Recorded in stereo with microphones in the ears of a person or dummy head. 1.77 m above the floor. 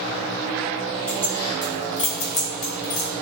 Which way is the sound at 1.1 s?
10° left (ahead or behind).